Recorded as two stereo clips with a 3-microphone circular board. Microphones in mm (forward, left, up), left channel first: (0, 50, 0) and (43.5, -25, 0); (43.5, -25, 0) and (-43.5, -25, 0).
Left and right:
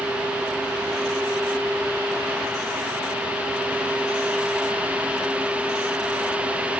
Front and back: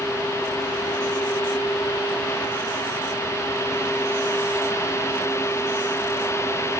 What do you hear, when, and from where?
Only background noise.